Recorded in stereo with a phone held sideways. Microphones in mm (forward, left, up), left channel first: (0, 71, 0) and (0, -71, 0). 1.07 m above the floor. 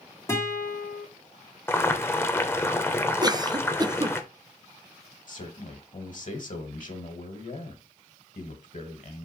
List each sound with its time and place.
0.3 s a guitar: 20° left (ahead or behind), 2 m
1.7 s boiling: 15° left (ahead or behind), 0.7 m
3.2 s a cough: 30° right (ahead or behind), 0.5 m
5.3 s a man speaking: 60° left (ahead or behind), 1.6 m